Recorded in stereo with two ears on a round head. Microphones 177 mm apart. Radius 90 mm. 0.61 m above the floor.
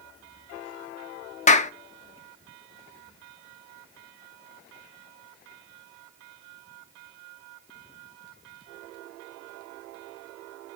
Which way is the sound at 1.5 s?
35° left (ahead or behind).